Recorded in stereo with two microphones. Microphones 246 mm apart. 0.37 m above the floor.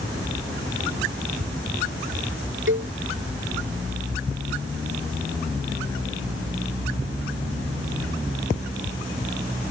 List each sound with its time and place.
2.7 s a cowbell: 55° right (ahead or behind)